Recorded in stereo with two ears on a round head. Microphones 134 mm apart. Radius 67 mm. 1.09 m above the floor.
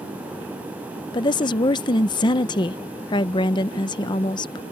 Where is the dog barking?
No dog barking in this recording.